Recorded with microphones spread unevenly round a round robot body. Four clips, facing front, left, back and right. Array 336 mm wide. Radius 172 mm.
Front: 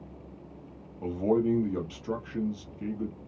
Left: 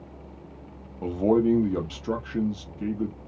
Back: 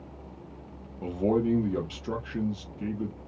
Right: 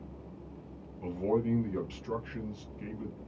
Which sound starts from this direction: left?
A man speaking, at 1.0 s.